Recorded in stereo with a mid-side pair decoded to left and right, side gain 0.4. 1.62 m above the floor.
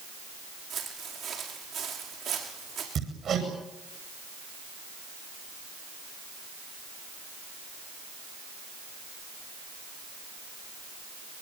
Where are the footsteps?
65° right, 7 m.